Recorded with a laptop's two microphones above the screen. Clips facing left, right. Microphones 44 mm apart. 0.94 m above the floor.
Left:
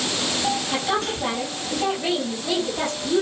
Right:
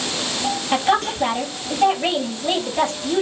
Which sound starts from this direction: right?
A woman speaking, at 0.7 s.